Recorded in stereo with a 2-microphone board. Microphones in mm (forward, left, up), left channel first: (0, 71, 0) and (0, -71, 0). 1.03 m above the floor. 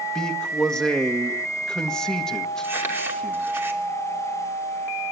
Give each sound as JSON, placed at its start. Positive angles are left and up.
{"t": 0.1, "sound": "a man speaking", "side_deg": 5, "distance_m": 1.5}
{"t": 2.6, "sound": "crumpling", "side_deg": -15, "distance_m": 3.0}